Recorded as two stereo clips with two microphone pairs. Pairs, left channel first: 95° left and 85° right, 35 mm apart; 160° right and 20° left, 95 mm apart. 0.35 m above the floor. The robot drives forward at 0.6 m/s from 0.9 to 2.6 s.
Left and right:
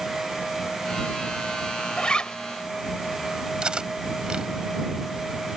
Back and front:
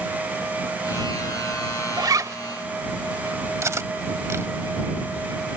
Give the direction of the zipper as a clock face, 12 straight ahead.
11 o'clock.